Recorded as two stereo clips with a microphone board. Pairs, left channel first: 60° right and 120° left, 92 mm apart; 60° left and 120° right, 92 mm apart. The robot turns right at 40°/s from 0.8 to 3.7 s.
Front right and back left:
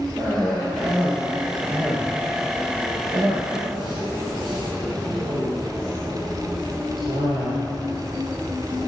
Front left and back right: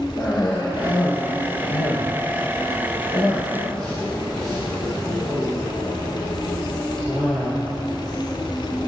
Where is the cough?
25° left, 2.5 m; by 7.5 s 140° left, 2.5 m.